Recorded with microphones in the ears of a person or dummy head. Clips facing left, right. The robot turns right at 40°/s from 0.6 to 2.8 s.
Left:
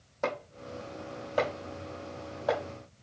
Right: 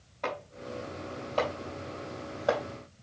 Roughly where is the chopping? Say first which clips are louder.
Left 2 dB; left.